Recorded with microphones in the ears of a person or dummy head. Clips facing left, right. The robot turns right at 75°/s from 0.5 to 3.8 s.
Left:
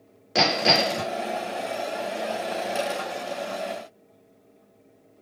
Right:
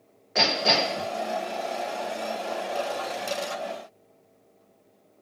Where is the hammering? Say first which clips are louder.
Left 3 dB; 145° left, 2.5 m; by 1.1 s 175° right, 2.5 m.